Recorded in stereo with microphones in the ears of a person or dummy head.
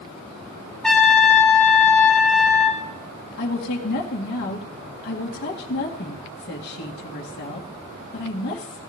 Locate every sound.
0.8 s a trumpet: 5° left (ahead or behind), 1.2 m
3.4 s a woman speaking: 55° left (ahead or behind), 2 m